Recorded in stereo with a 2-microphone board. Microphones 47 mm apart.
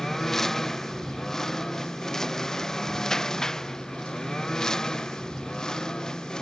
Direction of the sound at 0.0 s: 10° left (ahead or behind).